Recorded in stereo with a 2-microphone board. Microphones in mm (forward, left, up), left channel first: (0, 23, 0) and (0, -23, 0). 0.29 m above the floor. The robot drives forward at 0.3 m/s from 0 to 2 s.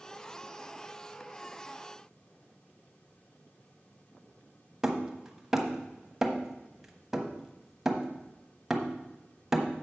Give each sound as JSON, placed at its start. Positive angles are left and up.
{"t": 4.8, "sound": "hammering", "side_deg": -10, "distance_m": 1.1}